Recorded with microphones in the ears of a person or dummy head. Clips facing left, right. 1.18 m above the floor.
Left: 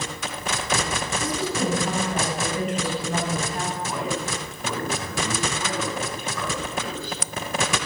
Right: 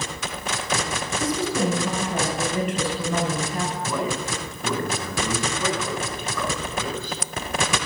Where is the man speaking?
80° right, 9.5 m.